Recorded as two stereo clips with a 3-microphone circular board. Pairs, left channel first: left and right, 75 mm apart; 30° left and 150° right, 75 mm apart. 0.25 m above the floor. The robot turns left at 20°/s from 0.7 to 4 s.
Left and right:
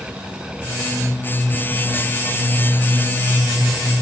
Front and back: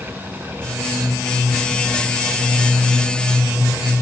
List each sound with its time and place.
Only background noise.